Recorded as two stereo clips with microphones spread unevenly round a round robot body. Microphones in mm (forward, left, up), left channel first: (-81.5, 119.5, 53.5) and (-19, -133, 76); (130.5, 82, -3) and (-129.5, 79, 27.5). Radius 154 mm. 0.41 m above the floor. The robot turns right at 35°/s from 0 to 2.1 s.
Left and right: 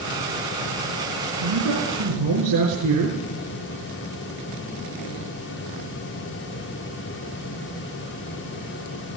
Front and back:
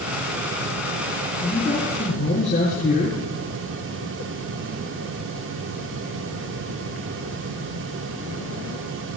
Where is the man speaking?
85° right, 6 m; by 3.2 s 65° right, 6 m.